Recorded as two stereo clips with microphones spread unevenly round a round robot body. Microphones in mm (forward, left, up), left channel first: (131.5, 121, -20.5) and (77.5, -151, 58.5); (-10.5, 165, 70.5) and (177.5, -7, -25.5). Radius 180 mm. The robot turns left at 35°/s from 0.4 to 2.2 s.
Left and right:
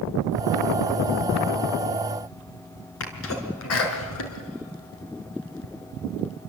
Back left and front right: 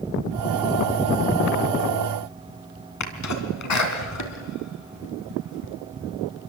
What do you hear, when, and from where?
3.0 s a sneeze: 115° left, 4 m